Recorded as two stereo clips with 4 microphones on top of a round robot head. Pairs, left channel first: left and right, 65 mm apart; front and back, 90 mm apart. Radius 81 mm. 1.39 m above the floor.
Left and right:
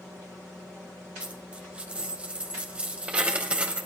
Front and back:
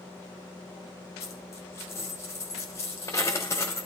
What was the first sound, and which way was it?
A dropped coin, 40° right.